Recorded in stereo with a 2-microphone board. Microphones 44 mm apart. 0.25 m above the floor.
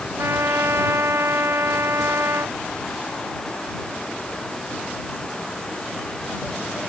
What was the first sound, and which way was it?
A trumpet, 75° right (ahead or behind).